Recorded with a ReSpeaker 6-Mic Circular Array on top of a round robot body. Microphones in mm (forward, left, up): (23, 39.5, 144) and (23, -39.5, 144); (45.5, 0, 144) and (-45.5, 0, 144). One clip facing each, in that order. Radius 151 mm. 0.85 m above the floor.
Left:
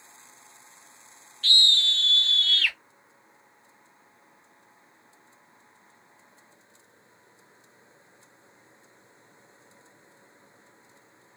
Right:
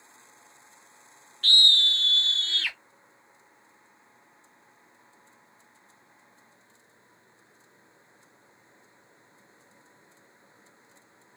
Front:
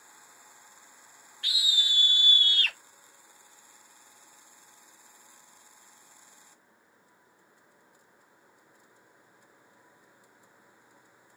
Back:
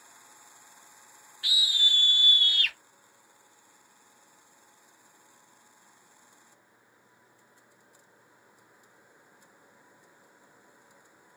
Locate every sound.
1.4 s a scream: 95° right, 1.1 m; by 2.8 s 25° right, 1.1 m